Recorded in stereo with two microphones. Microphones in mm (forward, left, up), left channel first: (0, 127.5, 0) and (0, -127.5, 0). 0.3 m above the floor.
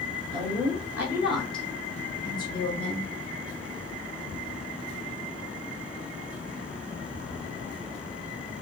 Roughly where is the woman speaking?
Centre.